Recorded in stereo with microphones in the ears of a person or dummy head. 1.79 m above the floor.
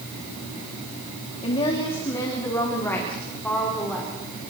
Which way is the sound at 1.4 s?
35° left (ahead or behind).